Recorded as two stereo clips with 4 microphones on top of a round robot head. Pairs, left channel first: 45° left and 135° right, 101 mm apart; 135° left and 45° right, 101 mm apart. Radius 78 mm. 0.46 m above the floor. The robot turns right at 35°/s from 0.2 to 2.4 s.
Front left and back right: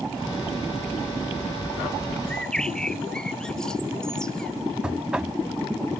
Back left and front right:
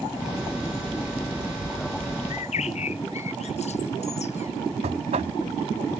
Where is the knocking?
55° right.